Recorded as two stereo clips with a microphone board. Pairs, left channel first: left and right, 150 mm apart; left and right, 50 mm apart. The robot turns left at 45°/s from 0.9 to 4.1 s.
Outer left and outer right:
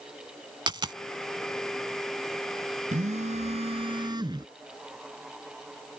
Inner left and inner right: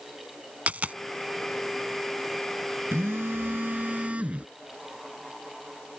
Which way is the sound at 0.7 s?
30° right (ahead or behind).